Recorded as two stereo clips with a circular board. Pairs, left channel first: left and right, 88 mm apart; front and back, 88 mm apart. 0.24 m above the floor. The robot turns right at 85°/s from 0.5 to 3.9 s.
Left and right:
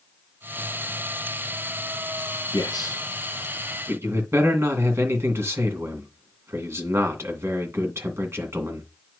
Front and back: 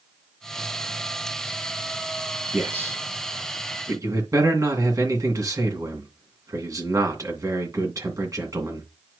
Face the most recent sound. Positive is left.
turn(degrees=-140)